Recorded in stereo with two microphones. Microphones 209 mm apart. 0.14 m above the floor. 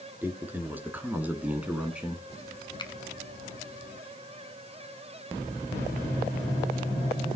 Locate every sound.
0.2 s a man speaking: 10° right (ahead or behind), 2.5 m; by 2.2 s 5° right (ahead or behind), 1.7 m
2.8 s a finger snap: 20° left (ahead or behind), 1.2 m